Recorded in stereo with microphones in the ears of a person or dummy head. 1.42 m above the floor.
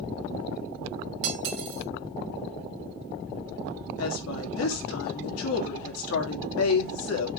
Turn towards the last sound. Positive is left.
turn(degrees=85)